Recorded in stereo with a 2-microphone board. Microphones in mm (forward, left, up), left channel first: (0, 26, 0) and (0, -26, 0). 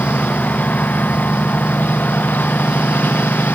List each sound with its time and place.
0.0 s a lawn mower: 30° left (ahead or behind); by 3.6 s 35° left (ahead or behind)